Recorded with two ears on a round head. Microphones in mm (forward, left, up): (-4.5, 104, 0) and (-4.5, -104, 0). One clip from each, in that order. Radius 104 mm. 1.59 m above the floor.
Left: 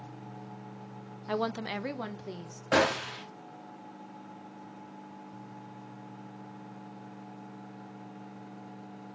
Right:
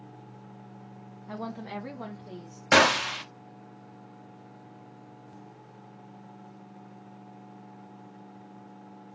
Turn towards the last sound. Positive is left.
turn(degrees=-65)  # may be behind; listen again after turning